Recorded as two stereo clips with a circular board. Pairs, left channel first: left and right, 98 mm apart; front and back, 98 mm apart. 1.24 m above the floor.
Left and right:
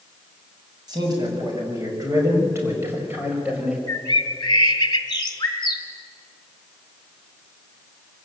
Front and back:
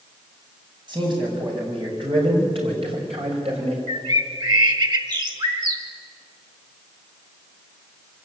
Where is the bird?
135° left, 1.8 m.